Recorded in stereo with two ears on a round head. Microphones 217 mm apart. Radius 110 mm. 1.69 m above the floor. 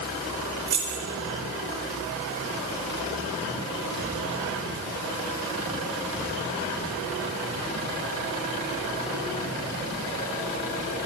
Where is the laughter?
I don't hear laughter.